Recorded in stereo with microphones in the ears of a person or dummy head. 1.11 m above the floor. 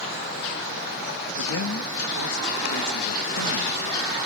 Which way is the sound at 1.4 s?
70° left (ahead or behind).